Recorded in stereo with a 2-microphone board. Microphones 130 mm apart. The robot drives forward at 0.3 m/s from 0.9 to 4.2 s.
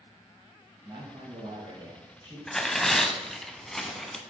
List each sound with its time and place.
0.8 s a man speaking: 35° right (ahead or behind), 3 m; by 2.4 s 30° right (ahead or behind), 3.5 m
2.5 s tearing paper: 5° left (ahead or behind), 0.6 m; by 4.2 s centre (ahead or behind), 0.9 m